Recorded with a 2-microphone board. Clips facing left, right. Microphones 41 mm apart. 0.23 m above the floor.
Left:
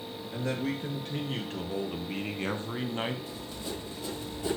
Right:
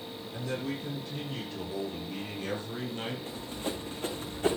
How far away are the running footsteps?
About 2.5 m.